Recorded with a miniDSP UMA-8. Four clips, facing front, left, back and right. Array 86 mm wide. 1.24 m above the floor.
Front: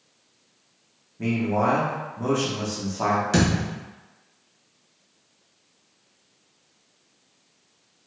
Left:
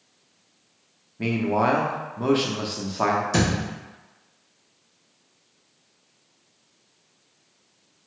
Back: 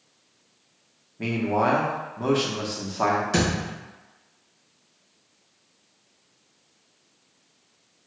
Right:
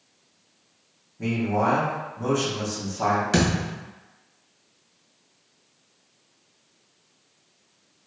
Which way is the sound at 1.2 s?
115° left.